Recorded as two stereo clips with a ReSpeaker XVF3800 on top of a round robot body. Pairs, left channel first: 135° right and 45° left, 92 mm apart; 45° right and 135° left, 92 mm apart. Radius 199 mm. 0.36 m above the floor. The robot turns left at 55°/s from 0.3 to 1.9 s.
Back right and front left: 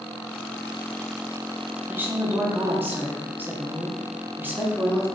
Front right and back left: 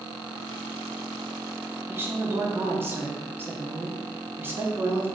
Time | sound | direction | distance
1.9 | a woman speaking | 95° left | 1.2 m